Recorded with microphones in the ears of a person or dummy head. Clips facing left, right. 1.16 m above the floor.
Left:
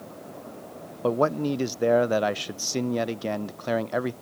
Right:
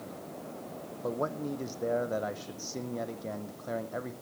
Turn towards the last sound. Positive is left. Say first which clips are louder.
# left 10 dB
turn(degrees=75)  # may be behind; listen again after turning